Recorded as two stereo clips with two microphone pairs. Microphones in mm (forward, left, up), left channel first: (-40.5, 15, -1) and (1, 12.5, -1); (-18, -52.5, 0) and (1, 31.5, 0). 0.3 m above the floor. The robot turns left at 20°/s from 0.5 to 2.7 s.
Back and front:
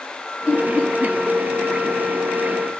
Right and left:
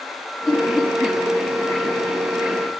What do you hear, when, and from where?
0.5 s laughter: 60° left, 1.4 m; by 1.2 s 45° left, 1.4 m